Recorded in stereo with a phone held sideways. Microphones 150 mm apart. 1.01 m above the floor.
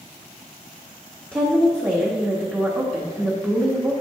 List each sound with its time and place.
1.3 s a woman speaking: 15° right (ahead or behind), 1.2 m